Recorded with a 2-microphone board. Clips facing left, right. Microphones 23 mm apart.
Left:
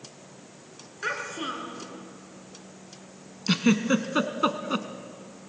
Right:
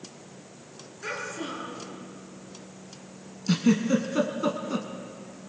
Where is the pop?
No pop in this recording.